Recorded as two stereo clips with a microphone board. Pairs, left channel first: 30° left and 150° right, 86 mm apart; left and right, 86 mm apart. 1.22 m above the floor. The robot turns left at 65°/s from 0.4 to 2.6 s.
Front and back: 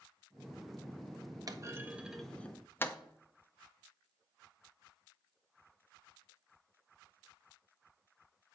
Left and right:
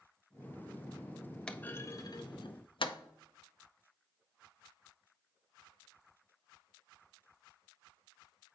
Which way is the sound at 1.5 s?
170° left.